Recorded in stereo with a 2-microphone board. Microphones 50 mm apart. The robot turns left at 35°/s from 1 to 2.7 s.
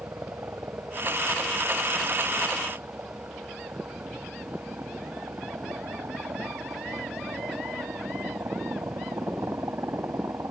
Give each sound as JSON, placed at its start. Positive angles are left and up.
{"t": 0.0, "sound": "a helicopter", "side_deg": -60}